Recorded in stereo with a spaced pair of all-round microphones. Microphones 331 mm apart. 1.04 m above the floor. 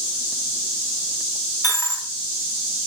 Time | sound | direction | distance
1.6 | a dropped coin | 10° left (ahead or behind) | 3 m